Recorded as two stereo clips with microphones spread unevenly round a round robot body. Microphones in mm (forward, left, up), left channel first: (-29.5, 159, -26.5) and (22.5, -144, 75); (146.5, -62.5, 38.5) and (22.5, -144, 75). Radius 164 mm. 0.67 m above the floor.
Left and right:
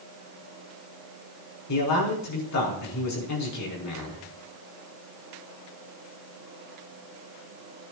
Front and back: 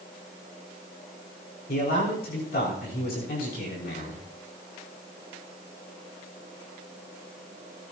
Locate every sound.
1.7 s a man speaking: 65° left, 5.5 m